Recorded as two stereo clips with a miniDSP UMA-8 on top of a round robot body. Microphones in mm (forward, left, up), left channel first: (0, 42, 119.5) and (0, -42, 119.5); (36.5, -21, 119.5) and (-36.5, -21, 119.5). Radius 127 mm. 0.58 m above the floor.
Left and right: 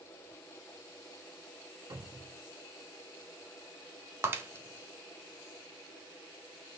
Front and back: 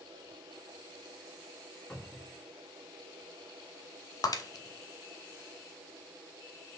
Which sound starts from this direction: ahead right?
Breaking glass, at 4.2 s.